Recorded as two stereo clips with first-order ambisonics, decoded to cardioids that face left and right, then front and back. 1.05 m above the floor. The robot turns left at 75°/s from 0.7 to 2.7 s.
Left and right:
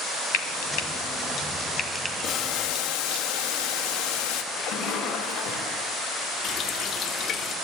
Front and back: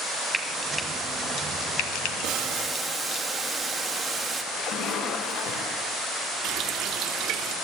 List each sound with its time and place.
0.3 s frying: 100° left, 2 m; by 3.2 s 50° right, 2 m
2.2 s boiling: 140° left, 1.5 m; by 4.4 s 105° left, 1.5 m
4.5 s a splash: 40° left, 5 m
6.4 s a running tap: 145° left, 1.3 m